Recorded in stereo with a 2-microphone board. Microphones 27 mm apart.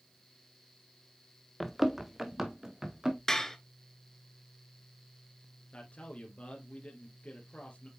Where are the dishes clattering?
20° left (ahead or behind), 1.3 m.